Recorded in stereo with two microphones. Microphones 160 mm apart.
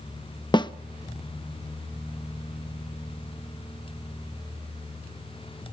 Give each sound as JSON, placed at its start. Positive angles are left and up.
{"t": 0.5, "sound": "a snare drum", "side_deg": 30, "distance_m": 0.7}